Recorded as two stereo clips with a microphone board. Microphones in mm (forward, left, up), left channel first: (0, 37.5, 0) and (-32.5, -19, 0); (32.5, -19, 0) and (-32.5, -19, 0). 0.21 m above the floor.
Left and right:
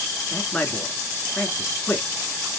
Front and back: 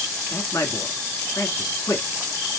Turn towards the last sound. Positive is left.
turn(degrees=-5)